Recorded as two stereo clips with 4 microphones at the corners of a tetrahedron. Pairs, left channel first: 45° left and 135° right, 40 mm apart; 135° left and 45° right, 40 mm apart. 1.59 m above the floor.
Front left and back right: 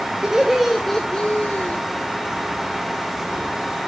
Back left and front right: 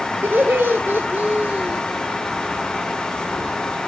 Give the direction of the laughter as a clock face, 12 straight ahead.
2 o'clock.